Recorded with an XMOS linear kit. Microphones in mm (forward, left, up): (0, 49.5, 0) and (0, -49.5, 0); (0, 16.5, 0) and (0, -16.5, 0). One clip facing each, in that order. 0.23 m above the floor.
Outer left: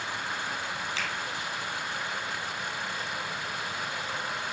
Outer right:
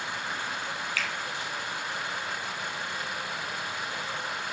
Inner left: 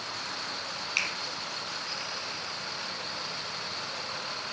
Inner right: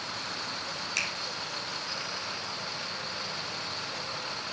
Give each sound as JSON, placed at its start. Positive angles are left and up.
{"t": 1.0, "sound": "a finger snap", "side_deg": 25, "distance_m": 4.0}